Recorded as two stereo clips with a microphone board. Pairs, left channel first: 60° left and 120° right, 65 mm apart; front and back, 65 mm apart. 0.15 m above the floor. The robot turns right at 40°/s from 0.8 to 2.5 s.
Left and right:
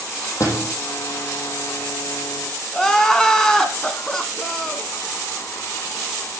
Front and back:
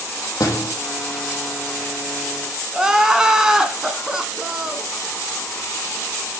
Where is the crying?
125° left, 1.3 m.